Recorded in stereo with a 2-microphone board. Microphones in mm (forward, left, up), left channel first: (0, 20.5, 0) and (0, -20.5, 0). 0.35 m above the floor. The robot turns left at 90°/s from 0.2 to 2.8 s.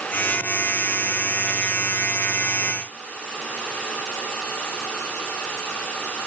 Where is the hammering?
No hammering in this recording.